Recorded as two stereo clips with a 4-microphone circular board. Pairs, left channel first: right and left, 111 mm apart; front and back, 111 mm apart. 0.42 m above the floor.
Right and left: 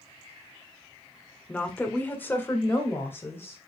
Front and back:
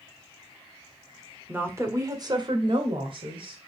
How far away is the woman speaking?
About 1.3 m.